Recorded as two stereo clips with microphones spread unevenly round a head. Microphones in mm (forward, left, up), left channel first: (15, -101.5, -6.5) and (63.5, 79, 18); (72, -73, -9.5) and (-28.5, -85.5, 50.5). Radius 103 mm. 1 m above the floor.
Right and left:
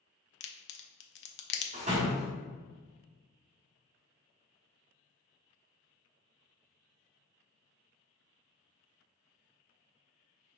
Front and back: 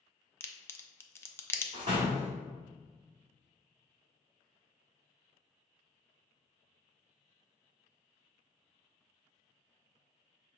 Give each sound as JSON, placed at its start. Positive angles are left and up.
{"t": 0.4, "sound": "a crack", "azimuth_deg": -75, "distance_m": 0.5}
{"t": 1.7, "sound": "a door slam", "azimuth_deg": 135, "distance_m": 1.0}